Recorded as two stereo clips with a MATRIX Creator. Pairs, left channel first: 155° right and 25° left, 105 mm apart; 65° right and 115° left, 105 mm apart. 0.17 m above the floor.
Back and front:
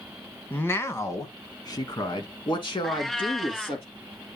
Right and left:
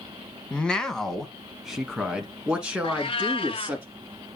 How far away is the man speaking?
About 1.2 m.